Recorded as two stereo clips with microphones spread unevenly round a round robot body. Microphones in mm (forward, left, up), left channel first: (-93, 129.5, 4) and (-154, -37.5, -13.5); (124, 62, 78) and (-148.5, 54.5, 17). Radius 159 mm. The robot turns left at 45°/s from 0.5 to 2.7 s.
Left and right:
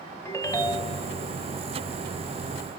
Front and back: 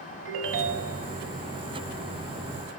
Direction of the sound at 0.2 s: 150° left.